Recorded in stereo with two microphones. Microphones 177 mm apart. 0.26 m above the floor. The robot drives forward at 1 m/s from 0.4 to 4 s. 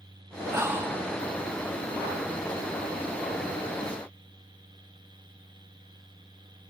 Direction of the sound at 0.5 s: 15° right (ahead or behind).